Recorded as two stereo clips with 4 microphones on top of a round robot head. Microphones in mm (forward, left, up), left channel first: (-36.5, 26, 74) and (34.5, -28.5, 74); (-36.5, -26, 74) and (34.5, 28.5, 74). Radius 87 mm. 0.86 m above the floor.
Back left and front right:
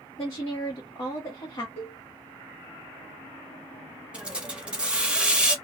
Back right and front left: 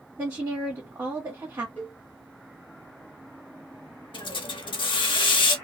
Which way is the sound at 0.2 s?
95° left.